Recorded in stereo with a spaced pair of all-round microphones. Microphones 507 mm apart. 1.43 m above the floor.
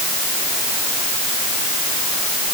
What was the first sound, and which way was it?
Only background noise.